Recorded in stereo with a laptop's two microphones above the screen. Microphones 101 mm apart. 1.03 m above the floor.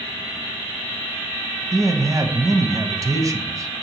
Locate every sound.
1.7 s a man speaking: 35° right (ahead or behind), 0.6 m